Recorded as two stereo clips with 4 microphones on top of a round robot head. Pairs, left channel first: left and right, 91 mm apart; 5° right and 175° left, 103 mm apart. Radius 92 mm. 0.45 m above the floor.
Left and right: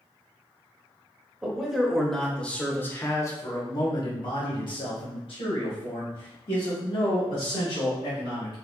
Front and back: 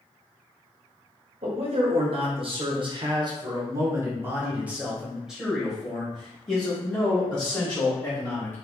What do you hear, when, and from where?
1.4 s a man speaking: 170° right, 1.9 m; by 8.6 s 70° left, 4 m